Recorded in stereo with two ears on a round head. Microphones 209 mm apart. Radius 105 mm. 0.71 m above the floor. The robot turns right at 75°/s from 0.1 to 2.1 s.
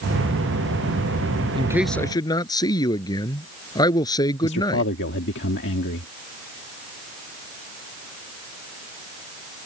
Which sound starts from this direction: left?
A man speaking, at 4.4 s.